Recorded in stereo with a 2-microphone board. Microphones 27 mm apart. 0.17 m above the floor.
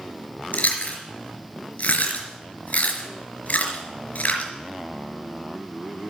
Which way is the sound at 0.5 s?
60° left (ahead or behind).